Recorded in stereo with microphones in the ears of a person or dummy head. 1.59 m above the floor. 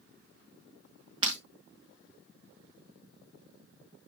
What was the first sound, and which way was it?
Breaking glass, 25° right (ahead or behind).